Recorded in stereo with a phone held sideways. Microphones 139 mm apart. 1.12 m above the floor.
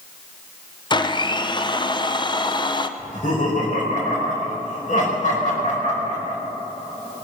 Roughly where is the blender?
Left.